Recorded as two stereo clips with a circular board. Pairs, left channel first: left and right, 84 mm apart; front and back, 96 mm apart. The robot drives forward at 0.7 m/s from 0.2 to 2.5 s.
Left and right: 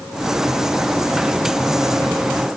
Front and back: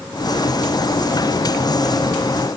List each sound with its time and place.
Only background noise.